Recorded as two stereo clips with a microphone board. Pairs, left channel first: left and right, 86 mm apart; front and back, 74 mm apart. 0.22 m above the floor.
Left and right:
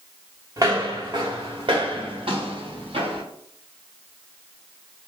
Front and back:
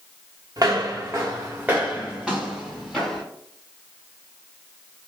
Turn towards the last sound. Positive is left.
turn(degrees=-80)